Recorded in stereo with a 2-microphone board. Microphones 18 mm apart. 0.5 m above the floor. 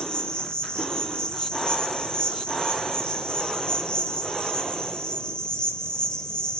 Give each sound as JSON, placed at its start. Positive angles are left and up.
{"t": 0.0, "sound": "an insect", "side_deg": 65, "distance_m": 1.9}